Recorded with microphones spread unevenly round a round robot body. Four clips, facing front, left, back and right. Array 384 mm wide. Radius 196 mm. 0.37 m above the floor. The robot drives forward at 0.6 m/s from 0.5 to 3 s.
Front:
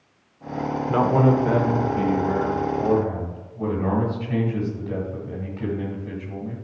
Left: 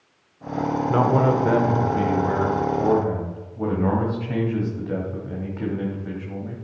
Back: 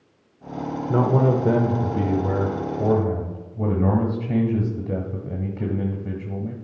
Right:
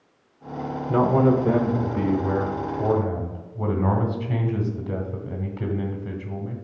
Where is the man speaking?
150° right, 0.8 m; by 6.5 s 175° right, 1.7 m.